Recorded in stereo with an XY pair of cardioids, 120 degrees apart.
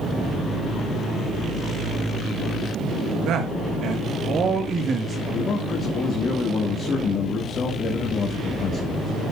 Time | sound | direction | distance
3.3 | a man speaking | 65° right | 1.9 m
5.3 | a man speaking | 45° left | 2.5 m